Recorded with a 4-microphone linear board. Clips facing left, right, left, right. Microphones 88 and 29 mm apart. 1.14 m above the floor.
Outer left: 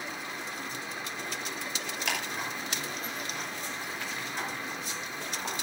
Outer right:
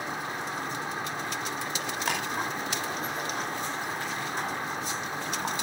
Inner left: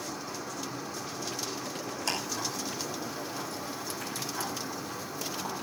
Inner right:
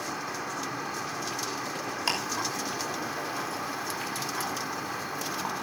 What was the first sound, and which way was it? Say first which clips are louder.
An insect: outer right 5 dB, inner right 4 dB; 50° right (ahead or behind).